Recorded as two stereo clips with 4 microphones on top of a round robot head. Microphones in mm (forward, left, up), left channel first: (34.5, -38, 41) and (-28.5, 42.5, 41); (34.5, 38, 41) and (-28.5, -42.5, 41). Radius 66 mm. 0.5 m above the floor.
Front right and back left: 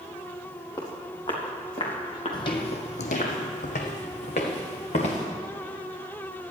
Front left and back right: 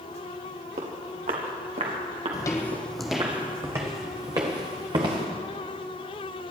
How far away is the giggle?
I don't hear a giggle.